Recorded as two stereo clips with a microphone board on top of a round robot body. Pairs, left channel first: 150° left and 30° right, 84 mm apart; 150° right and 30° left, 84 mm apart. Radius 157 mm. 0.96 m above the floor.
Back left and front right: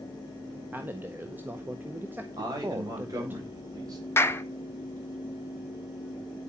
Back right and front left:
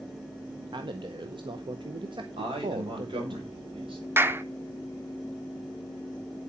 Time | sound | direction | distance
0.7 | a man speaking | 35° left | 1.1 m
2.4 | a man speaking | 15° left | 4.5 m
4.2 | a clap | 90° left | 1.0 m